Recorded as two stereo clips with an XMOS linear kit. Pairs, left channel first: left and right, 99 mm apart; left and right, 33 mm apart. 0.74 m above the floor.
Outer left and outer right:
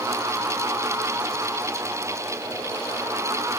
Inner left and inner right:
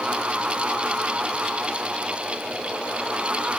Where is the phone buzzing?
I don't hear a phone buzzing.